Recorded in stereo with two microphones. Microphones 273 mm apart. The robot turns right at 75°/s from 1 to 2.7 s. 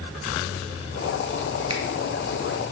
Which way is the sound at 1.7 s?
60° right (ahead or behind).